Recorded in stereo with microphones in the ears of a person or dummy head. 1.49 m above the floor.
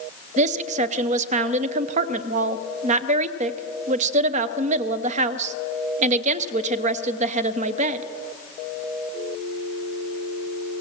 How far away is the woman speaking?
About 0.8 m.